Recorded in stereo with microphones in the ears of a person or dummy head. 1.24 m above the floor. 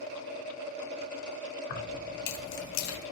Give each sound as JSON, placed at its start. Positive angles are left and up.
{"t": 1.7, "sound": "keys jangling", "side_deg": 55, "distance_m": 1.2}